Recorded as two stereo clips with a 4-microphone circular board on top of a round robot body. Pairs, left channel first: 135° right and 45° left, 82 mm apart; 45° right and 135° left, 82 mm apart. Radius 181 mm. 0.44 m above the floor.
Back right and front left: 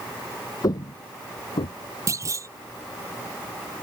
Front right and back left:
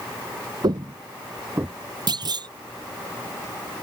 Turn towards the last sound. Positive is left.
turn(degrees=100)